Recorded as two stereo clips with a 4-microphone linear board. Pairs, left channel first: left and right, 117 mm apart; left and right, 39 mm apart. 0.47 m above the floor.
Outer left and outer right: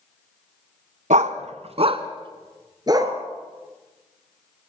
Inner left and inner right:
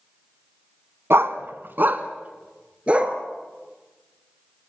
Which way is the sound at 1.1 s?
80° right.